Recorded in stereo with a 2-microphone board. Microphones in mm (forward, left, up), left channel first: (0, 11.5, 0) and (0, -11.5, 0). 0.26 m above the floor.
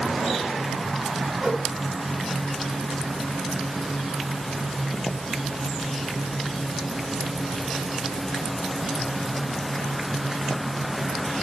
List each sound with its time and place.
1.4 s a whoosh: 40° right (ahead or behind), 1.3 m